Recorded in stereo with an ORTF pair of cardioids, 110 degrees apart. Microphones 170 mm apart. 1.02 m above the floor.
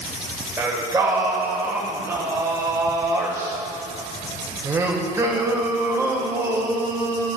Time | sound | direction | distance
0.6 | singing | 15° right | 1.9 m